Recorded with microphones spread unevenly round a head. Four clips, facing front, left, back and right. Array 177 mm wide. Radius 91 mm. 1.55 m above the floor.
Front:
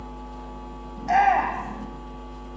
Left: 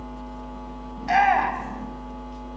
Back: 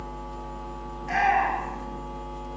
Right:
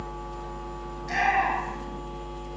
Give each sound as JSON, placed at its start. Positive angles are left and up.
{"t": 1.0, "sound": "a shout", "azimuth_deg": 30, "distance_m": 8.0}